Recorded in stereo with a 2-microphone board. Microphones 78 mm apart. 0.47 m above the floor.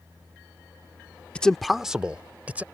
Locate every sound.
1.4 s a man speaking: 15° left (ahead or behind); by 2.6 s 20° right (ahead or behind)